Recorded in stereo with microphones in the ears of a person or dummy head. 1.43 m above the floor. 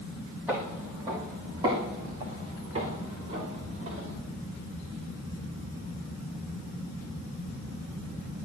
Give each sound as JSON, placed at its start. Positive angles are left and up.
{"t": 0.5, "sound": "footsteps", "side_deg": -5, "distance_m": 2.0}